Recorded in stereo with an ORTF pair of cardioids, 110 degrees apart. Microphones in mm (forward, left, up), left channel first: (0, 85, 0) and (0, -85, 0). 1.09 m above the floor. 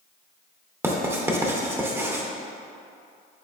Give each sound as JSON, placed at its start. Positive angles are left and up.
{"t": 0.8, "sound": "writing", "azimuth_deg": -15, "distance_m": 0.7}